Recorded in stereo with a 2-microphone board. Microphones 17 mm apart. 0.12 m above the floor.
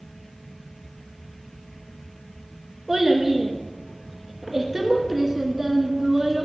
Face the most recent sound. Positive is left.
turn(degrees=-20)  # may be behind; listen again after turning